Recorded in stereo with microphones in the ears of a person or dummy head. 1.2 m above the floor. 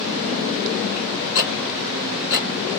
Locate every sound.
1.4 s ticking: 60° left (ahead or behind), 1.7 m